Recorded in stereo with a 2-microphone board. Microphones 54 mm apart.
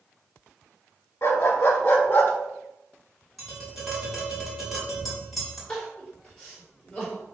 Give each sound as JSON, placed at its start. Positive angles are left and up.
{"t": 1.2, "sound": "a dog barking", "side_deg": 50, "distance_m": 1.6}
{"t": 3.4, "sound": "tapping", "side_deg": 0, "distance_m": 3.0}
{"t": 5.7, "sound": "crying", "side_deg": 15, "distance_m": 3.0}